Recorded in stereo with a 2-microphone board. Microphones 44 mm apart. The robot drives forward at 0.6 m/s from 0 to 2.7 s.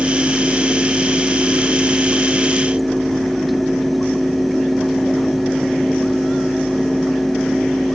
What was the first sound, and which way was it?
Only background noise.